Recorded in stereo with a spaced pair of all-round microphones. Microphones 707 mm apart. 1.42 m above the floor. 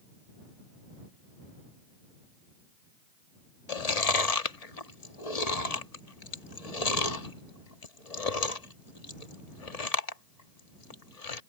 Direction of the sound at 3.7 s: 60° left (ahead or behind).